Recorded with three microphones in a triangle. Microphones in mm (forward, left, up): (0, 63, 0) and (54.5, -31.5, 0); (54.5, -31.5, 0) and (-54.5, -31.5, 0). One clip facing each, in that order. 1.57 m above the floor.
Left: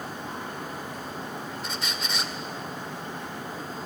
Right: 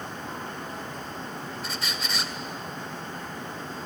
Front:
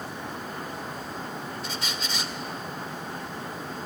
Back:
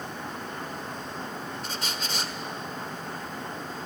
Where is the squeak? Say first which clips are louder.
Even, even; 150° right, 1.8 m.